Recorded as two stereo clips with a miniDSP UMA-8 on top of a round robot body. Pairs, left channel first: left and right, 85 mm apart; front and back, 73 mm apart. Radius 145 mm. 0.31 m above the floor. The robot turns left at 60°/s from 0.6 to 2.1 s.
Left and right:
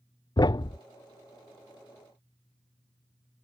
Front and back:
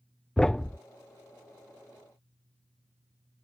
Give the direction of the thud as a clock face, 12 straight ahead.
9 o'clock.